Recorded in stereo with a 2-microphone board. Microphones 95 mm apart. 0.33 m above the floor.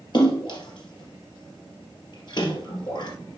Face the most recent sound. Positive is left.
turn(degrees=50)  # may be behind; listen again after turning